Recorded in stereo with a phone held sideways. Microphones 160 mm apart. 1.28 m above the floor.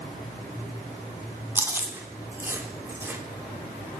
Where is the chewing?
15° right (ahead or behind), 0.6 m.